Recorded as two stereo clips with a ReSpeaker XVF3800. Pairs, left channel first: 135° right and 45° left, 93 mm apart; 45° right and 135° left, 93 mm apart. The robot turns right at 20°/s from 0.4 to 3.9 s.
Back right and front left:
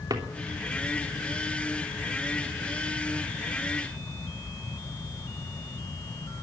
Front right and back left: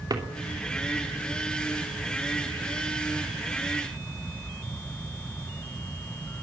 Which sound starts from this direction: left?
A drawer, at 0.1 s.